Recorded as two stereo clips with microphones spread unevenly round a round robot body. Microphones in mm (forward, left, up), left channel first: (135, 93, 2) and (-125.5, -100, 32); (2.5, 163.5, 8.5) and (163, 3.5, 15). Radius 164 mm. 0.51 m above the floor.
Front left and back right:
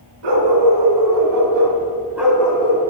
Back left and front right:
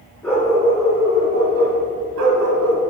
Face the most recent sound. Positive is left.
turn(degrees=-35)